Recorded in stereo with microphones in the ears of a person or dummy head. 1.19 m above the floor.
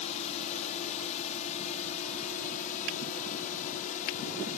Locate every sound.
0.0 s a drone: 35° left (ahead or behind); by 4.6 s 40° left (ahead or behind)